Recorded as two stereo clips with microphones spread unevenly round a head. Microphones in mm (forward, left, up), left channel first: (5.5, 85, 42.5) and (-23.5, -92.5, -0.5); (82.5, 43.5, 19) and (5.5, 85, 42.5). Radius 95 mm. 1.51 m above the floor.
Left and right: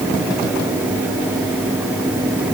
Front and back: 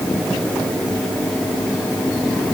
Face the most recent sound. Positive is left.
No sound to turn to.